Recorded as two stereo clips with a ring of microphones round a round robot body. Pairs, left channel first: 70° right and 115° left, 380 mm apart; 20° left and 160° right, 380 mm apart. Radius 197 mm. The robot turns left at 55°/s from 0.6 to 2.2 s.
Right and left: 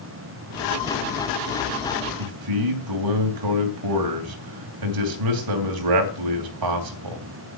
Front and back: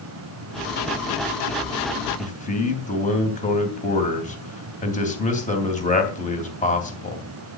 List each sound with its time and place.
2.2 s a man speaking: 90° left, 3 m